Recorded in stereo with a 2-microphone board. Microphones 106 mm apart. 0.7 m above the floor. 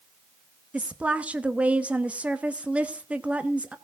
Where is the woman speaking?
15° right (ahead or behind), 0.9 m.